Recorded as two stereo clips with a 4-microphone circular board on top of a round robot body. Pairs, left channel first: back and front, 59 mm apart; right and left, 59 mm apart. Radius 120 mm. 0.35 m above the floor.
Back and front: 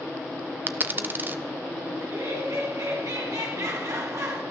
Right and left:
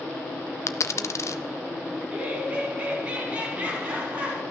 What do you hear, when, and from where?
0.7 s a dropped coin: 55° right, 0.7 m
2.0 s laughter: 25° left, 5 m